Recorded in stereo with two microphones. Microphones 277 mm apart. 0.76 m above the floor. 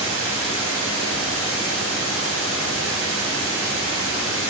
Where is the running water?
55° left (ahead or behind), 2 m.